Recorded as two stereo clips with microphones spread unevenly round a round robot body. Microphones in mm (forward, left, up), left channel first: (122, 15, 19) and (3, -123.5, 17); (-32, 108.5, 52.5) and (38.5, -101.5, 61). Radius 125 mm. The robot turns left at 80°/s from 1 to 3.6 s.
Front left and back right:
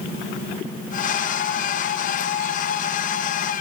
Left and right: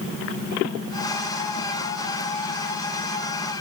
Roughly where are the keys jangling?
I don't hear keys jangling.